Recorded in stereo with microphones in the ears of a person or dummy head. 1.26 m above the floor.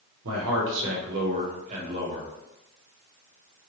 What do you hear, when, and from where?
0.2 s a man speaking: 90° right, 0.9 m; by 2.3 s 30° right (ahead or behind), 1.3 m